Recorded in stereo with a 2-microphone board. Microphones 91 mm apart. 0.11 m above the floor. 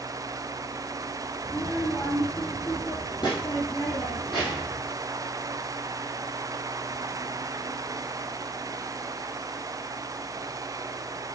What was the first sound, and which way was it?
A child speaking, 30° left (ahead or behind).